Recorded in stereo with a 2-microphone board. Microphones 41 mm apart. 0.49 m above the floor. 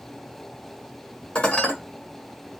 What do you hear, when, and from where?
1.4 s dishes clattering: 25° left (ahead or behind), 1.2 m